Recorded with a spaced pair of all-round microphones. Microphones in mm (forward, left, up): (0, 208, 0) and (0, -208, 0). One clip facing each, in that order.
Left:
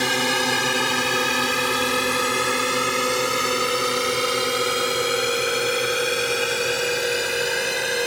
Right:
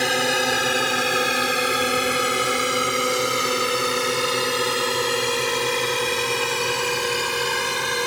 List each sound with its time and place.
0.0 s a drone: 15° left (ahead or behind); by 8.1 s 15° right (ahead or behind)